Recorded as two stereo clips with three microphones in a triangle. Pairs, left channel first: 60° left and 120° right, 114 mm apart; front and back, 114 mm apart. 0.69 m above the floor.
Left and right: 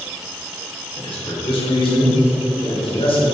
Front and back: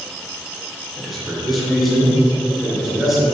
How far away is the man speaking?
About 3 m.